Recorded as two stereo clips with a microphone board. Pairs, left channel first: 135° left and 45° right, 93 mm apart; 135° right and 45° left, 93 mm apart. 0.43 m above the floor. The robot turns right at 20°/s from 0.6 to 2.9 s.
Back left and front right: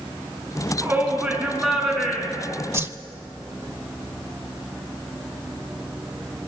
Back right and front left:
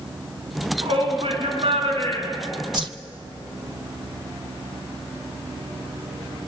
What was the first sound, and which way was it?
A shout, 25° left.